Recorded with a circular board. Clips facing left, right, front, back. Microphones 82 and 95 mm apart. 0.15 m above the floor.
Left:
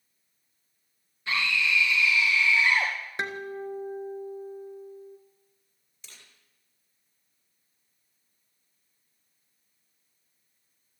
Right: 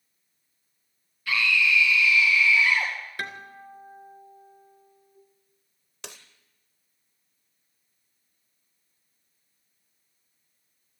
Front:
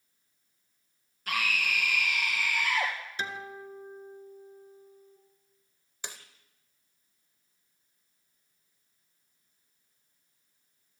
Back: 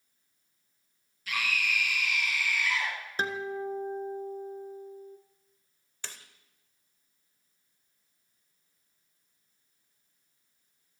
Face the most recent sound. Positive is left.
turn(degrees=-75)